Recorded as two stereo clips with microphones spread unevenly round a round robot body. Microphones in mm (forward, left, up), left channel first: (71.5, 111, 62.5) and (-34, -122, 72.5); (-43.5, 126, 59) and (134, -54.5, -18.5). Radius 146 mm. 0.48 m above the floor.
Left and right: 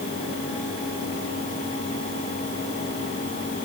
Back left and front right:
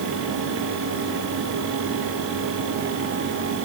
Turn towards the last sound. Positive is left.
No sound to turn to.